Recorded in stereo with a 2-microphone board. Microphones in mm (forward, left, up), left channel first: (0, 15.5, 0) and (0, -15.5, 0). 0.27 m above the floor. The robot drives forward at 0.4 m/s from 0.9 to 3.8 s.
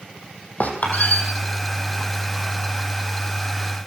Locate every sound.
0.6 s a squeak: 50° left (ahead or behind), 5 m